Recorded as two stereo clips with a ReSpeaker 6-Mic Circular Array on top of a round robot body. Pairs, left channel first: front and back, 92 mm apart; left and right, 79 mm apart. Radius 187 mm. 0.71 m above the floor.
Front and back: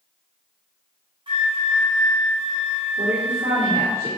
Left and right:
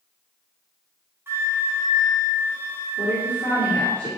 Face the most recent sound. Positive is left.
turn(degrees=155)